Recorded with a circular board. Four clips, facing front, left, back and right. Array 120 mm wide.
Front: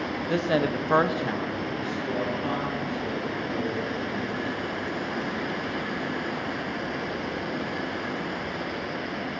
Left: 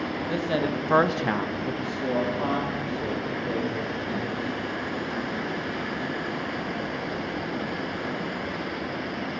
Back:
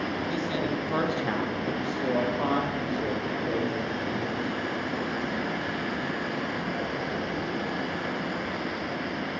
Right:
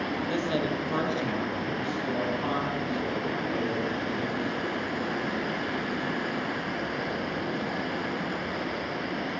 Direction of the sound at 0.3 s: 10° left.